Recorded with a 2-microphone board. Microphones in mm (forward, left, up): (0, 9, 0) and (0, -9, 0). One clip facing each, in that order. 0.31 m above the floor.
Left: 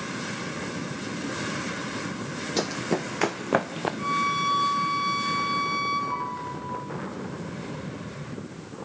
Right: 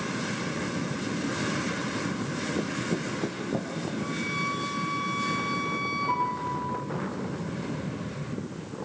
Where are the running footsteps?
70° left (ahead or behind), 0.9 m; by 3.9 s 75° left (ahead or behind), 1.8 m.